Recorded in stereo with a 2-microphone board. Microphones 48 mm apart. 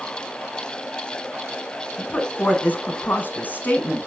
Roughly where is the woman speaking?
Left.